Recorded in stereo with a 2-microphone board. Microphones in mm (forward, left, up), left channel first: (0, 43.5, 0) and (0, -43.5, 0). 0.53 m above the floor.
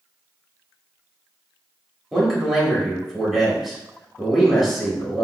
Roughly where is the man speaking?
Centre.